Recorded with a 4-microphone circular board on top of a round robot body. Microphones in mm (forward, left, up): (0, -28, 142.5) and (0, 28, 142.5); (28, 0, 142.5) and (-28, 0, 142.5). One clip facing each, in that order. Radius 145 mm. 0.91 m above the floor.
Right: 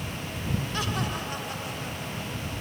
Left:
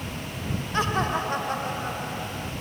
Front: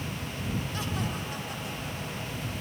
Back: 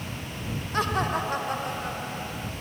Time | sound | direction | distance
0.7 | laughter | 145° left | ?